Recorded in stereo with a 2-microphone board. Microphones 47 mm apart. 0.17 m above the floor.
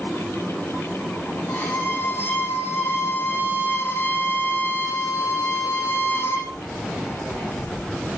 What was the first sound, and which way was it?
A violin, 55° left (ahead or behind).